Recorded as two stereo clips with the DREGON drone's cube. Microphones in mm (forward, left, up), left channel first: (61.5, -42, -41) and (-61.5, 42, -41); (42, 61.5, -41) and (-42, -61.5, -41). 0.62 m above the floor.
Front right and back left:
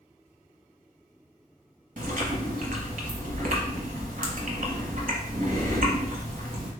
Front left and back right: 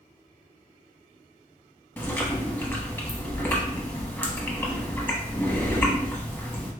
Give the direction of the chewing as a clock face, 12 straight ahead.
8 o'clock.